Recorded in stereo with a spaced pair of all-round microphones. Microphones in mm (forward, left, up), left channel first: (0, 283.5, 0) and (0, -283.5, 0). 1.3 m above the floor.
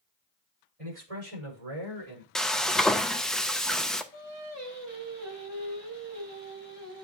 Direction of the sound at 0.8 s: 80° right.